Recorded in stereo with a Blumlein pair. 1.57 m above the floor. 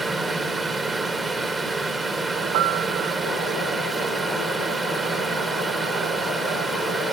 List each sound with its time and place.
0.0 s a fan: 10° right, 1.4 m
2.5 s a piano: 45° right, 0.9 m